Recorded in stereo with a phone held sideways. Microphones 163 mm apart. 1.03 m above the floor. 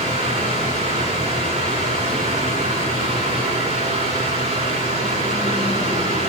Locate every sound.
0.0 s a fan: 40° right (ahead or behind), 8 m